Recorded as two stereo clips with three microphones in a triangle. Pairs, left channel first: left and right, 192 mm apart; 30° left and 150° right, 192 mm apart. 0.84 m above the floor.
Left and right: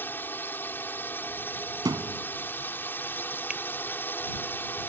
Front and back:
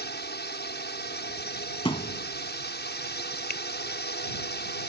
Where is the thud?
25° right.